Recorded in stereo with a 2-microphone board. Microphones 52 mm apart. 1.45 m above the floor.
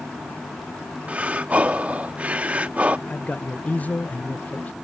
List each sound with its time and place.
1.1 s breathing: 30° right (ahead or behind)
3.1 s a man speaking: 30° left (ahead or behind)